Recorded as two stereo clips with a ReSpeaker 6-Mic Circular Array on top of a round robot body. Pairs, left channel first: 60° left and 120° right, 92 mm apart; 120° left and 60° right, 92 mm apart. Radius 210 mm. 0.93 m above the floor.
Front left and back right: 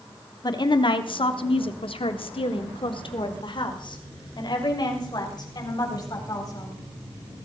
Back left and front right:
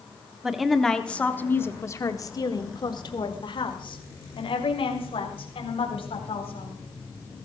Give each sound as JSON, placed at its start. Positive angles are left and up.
{"t": 0.4, "sound": "a woman speaking", "azimuth_deg": 25, "distance_m": 1.7}